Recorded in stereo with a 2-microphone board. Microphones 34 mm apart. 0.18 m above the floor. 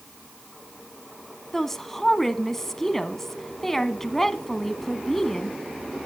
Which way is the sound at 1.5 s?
10° left (ahead or behind).